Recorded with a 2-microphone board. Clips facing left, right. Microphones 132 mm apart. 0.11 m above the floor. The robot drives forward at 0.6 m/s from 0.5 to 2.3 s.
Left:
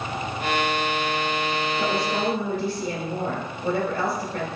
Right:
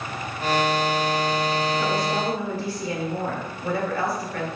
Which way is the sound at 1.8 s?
25° left (ahead or behind).